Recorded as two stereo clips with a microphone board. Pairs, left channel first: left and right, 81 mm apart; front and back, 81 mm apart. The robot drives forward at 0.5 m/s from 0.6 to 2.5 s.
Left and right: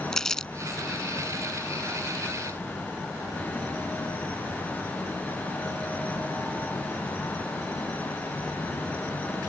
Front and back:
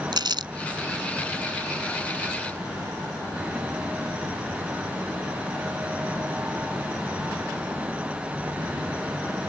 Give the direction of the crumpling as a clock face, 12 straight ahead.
6 o'clock.